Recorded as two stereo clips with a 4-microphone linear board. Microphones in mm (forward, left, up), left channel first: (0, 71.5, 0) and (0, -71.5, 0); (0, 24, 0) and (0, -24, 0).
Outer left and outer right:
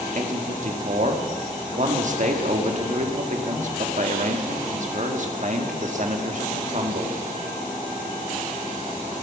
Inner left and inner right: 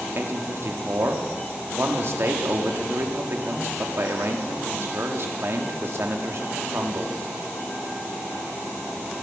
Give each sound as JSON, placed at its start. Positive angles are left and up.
{"t": 0.1, "sound": "a man speaking", "side_deg": -55, "distance_m": 1.6}